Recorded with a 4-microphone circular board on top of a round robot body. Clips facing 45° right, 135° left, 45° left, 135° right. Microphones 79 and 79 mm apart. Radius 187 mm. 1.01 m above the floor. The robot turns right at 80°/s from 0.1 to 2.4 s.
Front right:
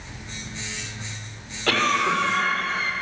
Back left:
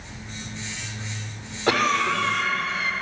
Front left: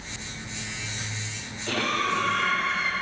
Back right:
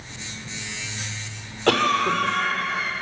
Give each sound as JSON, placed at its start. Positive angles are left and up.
{"t": 1.7, "sound": "a cough", "azimuth_deg": -155, "distance_m": 4.0}